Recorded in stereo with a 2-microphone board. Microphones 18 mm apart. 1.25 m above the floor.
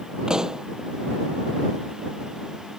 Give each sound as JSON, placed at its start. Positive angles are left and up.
{"t": 0.3, "sound": "a pop", "side_deg": -45}